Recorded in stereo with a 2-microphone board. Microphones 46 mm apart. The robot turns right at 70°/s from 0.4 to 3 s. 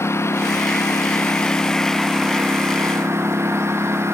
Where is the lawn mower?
70° left; by 4.2 s 110° right.